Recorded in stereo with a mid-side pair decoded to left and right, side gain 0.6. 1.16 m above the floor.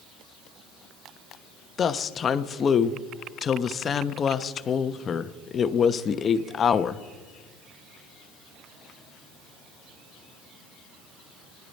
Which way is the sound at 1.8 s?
40° left.